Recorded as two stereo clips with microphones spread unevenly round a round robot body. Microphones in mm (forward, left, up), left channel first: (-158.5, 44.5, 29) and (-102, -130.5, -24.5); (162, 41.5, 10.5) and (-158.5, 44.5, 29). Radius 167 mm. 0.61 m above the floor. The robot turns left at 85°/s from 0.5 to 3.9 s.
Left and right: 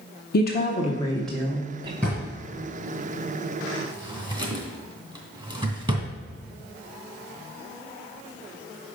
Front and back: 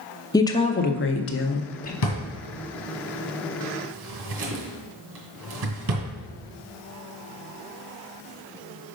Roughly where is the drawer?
Ahead.